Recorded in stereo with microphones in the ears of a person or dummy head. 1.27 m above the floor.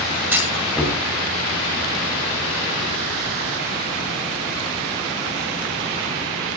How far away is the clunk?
About 7.5 m.